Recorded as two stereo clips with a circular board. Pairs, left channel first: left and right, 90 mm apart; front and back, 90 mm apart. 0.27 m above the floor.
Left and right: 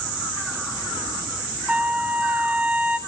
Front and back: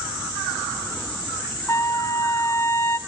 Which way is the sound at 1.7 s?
30° right.